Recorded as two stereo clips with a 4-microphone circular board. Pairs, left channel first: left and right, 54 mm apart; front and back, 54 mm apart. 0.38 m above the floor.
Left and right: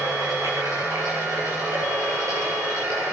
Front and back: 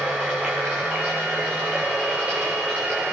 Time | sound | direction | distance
0.0 | running water | 110° right | 6.5 m